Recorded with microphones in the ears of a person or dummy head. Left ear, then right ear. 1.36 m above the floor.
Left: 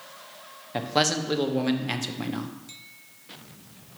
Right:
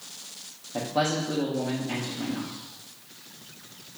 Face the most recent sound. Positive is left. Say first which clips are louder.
# left 2 dB
turn(degrees=60)  # may be behind; listen again after turning